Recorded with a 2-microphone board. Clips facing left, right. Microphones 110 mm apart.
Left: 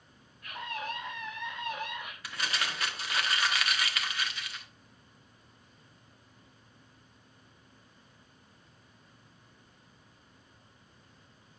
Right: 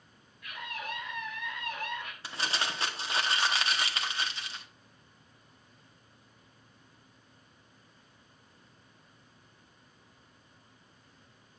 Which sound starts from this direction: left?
A scream, at 0.4 s.